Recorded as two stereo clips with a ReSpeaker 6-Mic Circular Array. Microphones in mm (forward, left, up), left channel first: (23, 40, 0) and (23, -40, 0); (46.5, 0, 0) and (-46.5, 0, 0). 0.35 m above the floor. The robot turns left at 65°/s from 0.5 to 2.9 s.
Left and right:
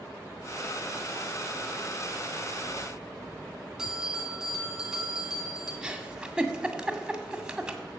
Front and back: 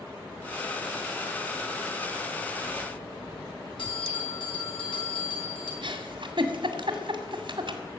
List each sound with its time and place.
3.8 s a bell: 10° right, 3.5 m
5.8 s a giggle: 170° right, 1.9 m